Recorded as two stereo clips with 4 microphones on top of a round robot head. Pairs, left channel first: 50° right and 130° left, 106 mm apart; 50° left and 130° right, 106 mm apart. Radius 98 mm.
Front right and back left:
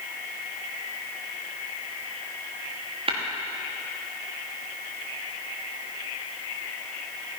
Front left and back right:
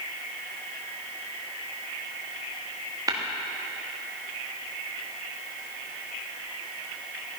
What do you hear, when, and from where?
3.1 s tapping: 170° left, 1.8 m